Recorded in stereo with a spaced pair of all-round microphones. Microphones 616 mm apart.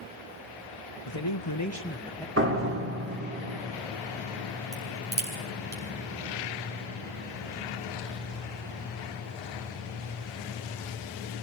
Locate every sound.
1.1 s a man speaking: 50° left (ahead or behind), 1.5 m; by 2.3 s 5° left (ahead or behind), 1.8 m
2.4 s a door slam: 20° right (ahead or behind), 3 m
4.7 s a crack: 55° right (ahead or behind), 5.5 m